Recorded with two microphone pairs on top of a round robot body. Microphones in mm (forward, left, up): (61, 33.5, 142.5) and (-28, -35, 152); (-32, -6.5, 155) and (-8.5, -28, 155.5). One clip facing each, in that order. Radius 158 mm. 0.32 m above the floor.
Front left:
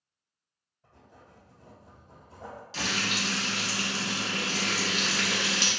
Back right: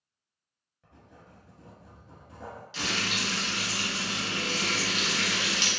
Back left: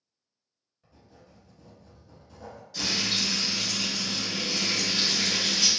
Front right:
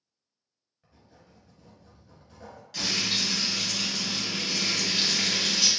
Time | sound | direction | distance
0.8 | writing | 120° right | 1.1 m
2.7 | frying | 15° right | 0.6 m